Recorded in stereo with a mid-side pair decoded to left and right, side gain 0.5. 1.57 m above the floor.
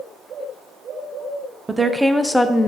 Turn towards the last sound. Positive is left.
turn(degrees=30)